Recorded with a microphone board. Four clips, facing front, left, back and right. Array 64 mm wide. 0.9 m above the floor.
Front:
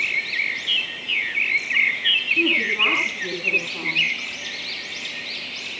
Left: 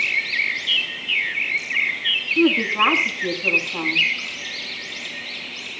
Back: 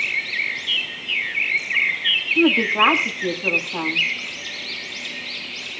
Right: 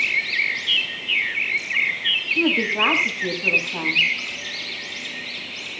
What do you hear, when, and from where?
2.4 s a woman speaking: 160° right, 7.5 m